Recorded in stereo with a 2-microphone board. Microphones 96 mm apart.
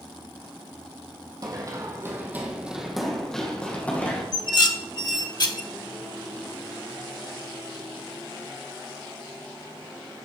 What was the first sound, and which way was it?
Running footsteps, 40° right (ahead or behind).